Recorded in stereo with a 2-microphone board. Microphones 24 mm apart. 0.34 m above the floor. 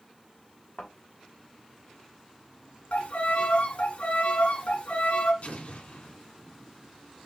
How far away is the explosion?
About 1.5 m.